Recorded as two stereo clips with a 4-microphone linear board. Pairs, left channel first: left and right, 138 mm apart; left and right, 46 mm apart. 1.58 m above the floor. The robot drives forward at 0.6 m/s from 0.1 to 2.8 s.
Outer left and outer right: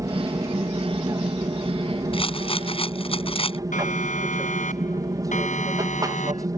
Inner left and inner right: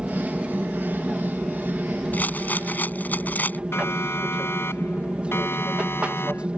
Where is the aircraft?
25° right (ahead or behind).